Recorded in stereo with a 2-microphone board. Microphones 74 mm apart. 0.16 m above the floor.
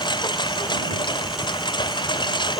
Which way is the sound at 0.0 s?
90° left.